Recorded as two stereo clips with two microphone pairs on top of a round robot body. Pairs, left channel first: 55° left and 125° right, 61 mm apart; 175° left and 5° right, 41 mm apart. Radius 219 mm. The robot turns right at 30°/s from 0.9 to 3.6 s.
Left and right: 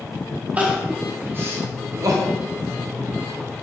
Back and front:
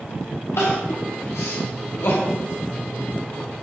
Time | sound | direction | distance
0.6 | crying | 165° left | 2 m